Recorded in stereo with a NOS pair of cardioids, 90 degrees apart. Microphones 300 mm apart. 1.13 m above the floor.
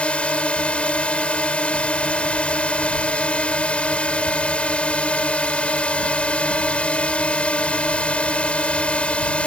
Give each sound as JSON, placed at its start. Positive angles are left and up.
{"t": 0.0, "sound": "a drone", "azimuth_deg": 5}